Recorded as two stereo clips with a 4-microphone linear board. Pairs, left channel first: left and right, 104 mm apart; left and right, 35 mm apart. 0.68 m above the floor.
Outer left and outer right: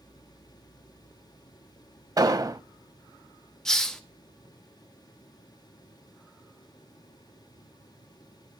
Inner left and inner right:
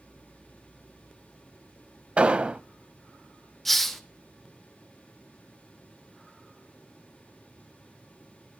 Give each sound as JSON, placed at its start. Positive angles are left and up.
{"t": 2.2, "sound": "an explosion", "side_deg": -40, "distance_m": 0.6}
{"t": 3.6, "sound": "a hiss", "side_deg": 5, "distance_m": 1.2}